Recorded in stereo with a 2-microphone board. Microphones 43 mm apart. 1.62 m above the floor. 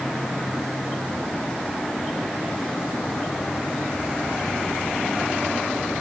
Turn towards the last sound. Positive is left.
No sound to turn to.